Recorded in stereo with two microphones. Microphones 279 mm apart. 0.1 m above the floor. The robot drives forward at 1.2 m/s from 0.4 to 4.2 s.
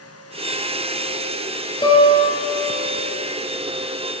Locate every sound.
1.8 s a guitar: 20° left (ahead or behind), 1.5 m; by 2.7 s 10° left (ahead or behind), 2.5 m